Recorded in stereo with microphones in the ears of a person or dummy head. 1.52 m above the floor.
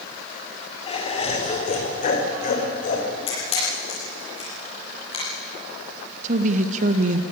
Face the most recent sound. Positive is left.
turn(degrees=-50)  # may be behind; listen again after turning